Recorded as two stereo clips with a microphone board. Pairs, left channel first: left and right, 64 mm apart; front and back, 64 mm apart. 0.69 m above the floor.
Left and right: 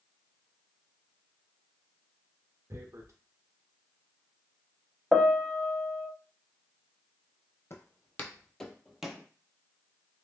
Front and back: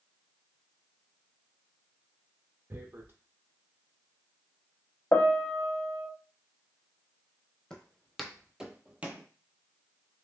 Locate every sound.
2.7 s tearing paper: 130° right, 0.6 m
5.1 s a piano: 5° right, 0.5 m
7.7 s footsteps: 75° left, 0.8 m; by 9.3 s 155° right, 0.7 m